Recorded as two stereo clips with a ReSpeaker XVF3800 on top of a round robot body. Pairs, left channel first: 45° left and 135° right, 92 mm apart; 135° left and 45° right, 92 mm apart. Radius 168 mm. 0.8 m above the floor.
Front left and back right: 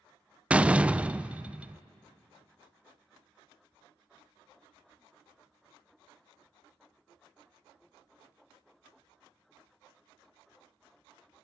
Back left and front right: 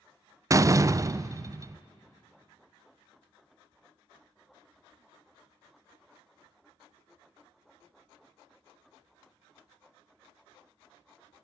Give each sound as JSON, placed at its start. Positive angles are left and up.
{"t": 0.5, "sound": "a door slam", "azimuth_deg": -65, "distance_m": 0.6}